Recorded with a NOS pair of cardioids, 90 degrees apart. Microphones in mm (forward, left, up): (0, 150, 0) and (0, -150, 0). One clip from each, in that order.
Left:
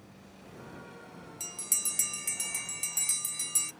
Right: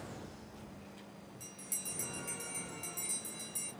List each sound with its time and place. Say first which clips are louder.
1.4 s a bell: left 11 dB; 70° left, 0.6 m